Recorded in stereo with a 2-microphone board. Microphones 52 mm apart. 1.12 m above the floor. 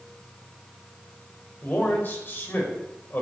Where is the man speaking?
40° left (ahead or behind), 5 m.